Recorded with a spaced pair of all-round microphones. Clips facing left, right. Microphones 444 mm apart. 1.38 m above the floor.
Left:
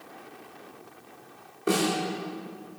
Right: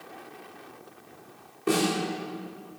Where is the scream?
I don't hear a scream.